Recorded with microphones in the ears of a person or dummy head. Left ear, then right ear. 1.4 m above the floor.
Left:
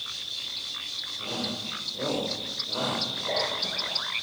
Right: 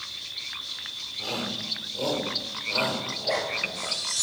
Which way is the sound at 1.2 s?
35° right (ahead or behind).